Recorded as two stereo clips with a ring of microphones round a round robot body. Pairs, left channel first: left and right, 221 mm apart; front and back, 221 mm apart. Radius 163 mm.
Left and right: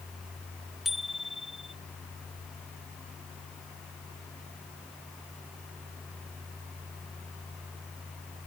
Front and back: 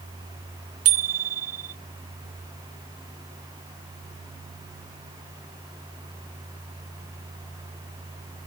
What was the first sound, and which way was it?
A bicycle bell, straight behind.